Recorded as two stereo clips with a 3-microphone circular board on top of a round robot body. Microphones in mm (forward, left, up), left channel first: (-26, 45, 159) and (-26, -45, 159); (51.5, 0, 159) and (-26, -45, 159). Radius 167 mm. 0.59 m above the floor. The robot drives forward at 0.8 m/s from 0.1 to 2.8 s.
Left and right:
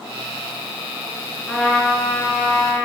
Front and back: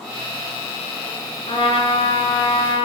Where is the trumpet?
5° left, 2 m.